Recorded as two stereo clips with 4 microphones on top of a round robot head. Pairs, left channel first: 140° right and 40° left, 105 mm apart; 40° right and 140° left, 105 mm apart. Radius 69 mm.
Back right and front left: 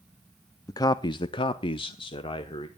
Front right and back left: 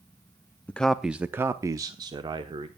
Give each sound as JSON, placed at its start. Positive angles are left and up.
{"t": 0.7, "sound": "a man speaking", "azimuth_deg": -105, "distance_m": 0.6}